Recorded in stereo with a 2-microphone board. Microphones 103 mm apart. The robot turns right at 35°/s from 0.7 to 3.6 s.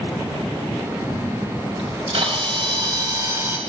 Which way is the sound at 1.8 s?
80° right.